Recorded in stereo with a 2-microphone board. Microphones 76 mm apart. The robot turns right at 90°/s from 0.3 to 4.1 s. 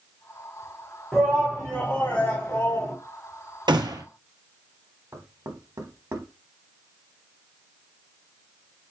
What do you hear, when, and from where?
1.1 s a shout: centre (ahead or behind), 1.0 m; by 3.0 s 5° left (ahead or behind), 1.0 m
3.7 s a gunshot: 75° right, 0.9 m; by 4.0 s 45° right, 0.9 m
5.1 s knocking: 40° right (ahead or behind), 0.9 m